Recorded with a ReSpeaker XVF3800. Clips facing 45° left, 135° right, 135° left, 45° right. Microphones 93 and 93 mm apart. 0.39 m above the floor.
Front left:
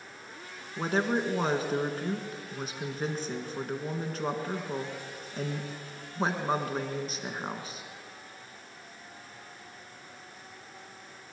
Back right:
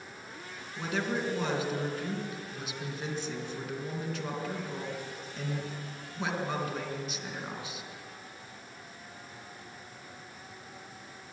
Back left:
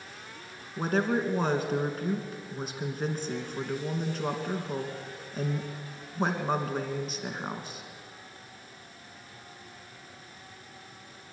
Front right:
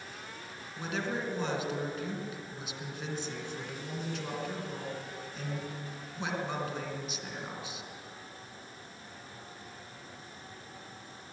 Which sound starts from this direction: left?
A woman speaking, at 0.8 s.